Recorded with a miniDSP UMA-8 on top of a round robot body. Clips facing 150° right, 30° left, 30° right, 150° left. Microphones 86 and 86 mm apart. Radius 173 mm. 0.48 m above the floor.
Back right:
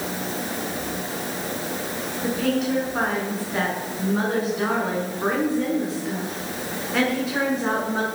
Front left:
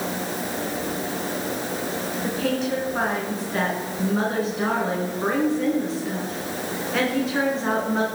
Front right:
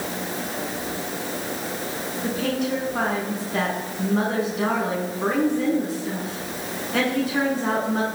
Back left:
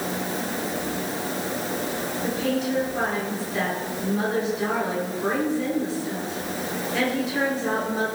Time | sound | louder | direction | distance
2.2 | a woman speaking | back right 3 dB, front right 1 dB | 60° right | 7 m